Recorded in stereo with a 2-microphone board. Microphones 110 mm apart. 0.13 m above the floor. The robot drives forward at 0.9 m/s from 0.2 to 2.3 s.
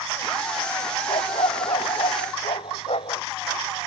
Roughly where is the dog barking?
Left.